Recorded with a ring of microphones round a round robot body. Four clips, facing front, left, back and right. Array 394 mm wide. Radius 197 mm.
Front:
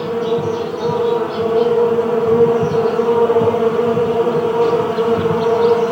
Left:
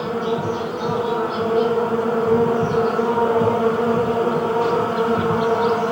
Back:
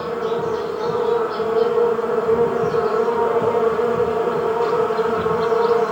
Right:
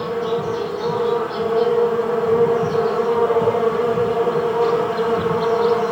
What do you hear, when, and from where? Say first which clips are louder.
0.0 s an insect: right 1 dB, front 4 dB; 30° left, 4.5 m